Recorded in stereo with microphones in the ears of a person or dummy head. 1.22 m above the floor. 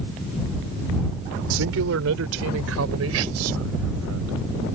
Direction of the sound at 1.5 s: 70° right (ahead or behind).